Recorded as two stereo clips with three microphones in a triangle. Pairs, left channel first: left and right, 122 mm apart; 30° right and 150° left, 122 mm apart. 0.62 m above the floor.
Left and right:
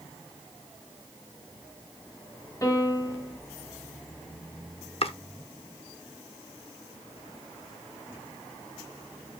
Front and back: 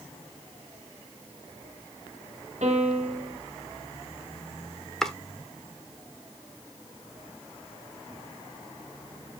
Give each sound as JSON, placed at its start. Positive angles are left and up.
{"t": 2.6, "sound": "a piano", "azimuth_deg": 155, "distance_m": 3.5}
{"t": 5.0, "sound": "chopping", "azimuth_deg": 55, "distance_m": 1.0}